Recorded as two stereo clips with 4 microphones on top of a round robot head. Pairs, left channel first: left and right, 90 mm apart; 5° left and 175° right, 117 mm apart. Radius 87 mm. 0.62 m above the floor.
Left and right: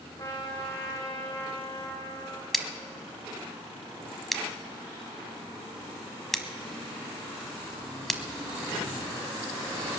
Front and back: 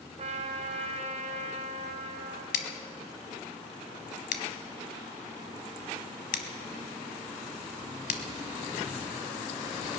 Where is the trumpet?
155° left, 2 m.